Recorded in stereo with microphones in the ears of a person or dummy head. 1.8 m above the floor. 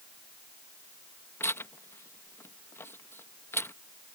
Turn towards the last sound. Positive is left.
turn(degrees=15)  # may be behind; listen again after turning